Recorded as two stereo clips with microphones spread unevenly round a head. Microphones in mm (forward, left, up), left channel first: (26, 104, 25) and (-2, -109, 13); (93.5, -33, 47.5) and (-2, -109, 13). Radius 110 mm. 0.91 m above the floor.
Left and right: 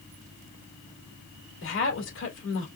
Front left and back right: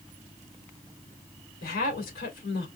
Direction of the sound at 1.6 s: 50° left.